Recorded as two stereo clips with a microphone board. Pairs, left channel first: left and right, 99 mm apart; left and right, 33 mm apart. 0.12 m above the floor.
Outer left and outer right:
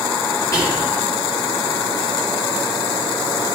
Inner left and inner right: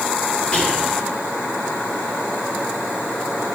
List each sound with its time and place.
0.5 s whispering: 35° left (ahead or behind), 1.3 m